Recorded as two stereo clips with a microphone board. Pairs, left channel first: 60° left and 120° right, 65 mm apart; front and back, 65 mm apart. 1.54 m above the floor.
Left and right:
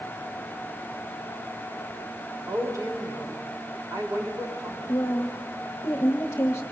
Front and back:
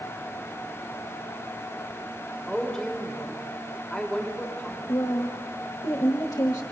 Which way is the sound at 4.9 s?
10° left.